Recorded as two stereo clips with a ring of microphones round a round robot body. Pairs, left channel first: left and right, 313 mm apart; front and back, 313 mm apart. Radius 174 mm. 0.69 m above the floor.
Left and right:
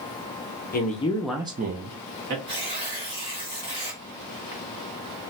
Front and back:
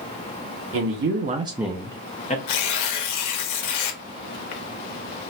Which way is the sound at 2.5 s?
20° right.